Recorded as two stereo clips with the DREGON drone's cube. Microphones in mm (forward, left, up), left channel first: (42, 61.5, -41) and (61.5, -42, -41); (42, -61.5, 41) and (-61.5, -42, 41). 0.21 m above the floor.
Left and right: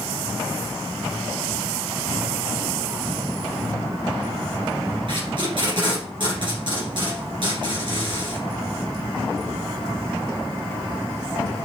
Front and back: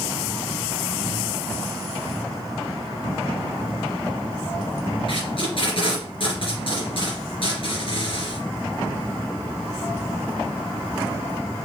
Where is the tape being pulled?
40° right, 3 m.